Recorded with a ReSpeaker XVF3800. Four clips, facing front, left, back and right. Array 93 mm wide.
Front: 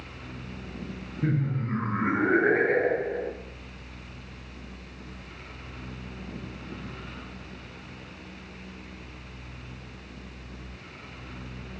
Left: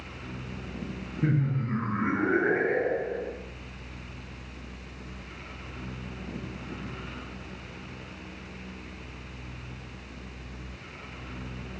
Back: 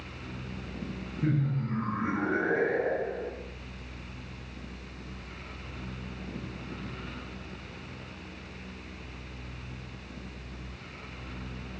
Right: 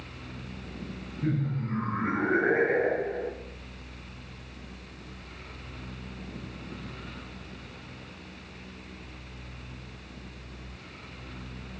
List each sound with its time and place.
1.2 s laughter: 60° left, 1.5 m; by 3.3 s 20° right, 2 m